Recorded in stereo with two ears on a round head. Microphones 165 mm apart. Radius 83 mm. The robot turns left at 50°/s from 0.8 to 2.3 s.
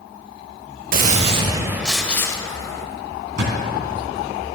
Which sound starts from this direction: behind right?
A gunshot, at 0.9 s.